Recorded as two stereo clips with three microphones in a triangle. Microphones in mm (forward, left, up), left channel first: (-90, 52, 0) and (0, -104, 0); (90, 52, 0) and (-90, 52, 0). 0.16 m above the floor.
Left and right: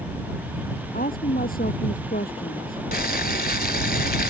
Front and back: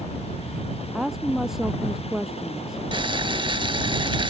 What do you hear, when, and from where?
0.9 s a woman speaking: 90° left
2.9 s boiling: 120° left